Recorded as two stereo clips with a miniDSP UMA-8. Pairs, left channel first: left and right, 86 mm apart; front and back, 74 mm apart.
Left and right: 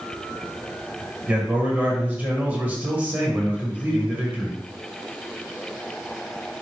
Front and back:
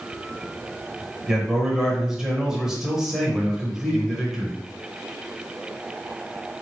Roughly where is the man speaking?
Right.